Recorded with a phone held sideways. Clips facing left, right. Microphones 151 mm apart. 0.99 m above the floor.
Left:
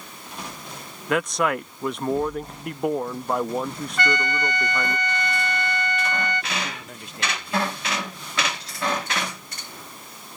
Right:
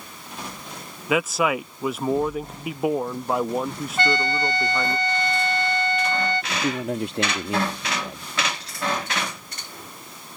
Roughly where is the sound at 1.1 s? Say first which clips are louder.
Right 1 dB; centre.